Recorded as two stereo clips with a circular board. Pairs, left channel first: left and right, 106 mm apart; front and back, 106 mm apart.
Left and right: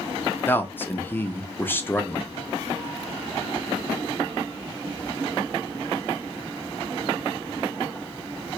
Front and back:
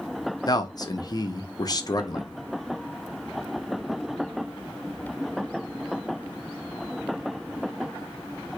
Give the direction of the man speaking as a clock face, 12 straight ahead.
11 o'clock.